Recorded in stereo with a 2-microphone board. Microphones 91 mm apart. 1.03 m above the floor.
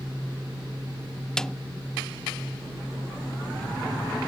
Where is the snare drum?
5° left (ahead or behind).